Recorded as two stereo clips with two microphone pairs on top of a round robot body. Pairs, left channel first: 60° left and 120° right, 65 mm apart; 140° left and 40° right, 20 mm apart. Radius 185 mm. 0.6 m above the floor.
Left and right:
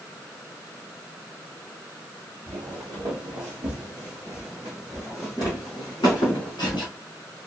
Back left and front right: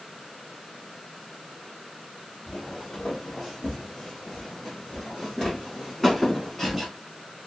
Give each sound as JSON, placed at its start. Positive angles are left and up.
{"t": 2.5, "sound": "footsteps", "azimuth_deg": -140, "distance_m": 1.6}